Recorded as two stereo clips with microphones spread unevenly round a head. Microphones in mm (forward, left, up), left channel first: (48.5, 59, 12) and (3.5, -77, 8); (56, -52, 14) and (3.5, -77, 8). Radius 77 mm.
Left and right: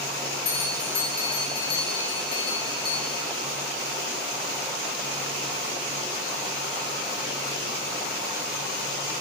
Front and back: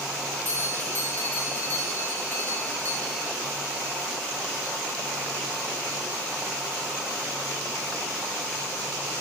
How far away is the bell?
About 1.0 m.